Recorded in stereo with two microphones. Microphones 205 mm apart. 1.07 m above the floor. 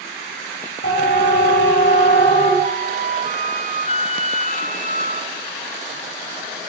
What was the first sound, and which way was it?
A siren, 60° left (ahead or behind).